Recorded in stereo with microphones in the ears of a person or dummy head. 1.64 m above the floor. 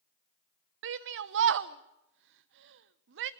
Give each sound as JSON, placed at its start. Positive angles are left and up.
{"t": 0.8, "sound": "a shout", "side_deg": -65, "distance_m": 0.9}